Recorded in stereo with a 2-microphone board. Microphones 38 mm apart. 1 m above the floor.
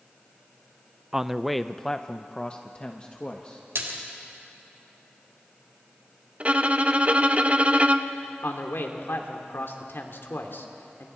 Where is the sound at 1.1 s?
10° right (ahead or behind), 0.6 m; by 3.6 s 30° left (ahead or behind), 1.6 m.